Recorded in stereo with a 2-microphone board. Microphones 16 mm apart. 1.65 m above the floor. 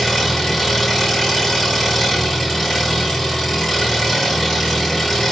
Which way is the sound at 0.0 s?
30° left (ahead or behind).